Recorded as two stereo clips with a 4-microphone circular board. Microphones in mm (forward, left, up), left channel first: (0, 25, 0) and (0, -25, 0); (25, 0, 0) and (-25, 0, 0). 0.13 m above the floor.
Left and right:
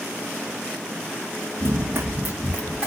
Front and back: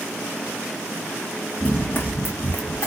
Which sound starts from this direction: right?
Running footsteps, at 1.6 s.